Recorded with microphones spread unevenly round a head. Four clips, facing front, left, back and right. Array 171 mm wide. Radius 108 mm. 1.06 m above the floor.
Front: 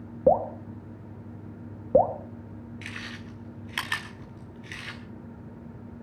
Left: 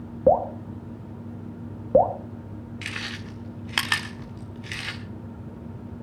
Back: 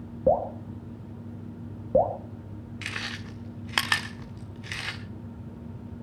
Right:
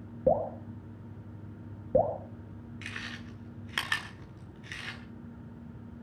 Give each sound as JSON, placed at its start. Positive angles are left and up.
{"t": 0.3, "sound": "dripping", "azimuth_deg": 60, "distance_m": 2.0}
{"t": 2.8, "sound": "chewing", "azimuth_deg": -170, "distance_m": 1.4}